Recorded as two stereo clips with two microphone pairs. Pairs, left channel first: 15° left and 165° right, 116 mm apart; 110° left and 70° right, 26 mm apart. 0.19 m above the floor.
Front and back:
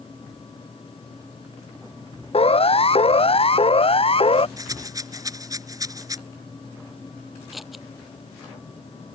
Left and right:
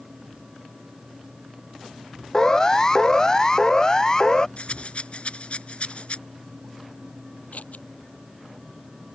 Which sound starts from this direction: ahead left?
A siren, at 2.3 s.